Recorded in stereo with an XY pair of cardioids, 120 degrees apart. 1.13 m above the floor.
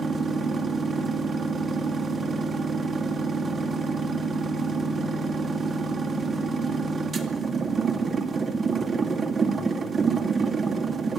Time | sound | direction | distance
0.0 | a machine running | 35° right | 2.5 m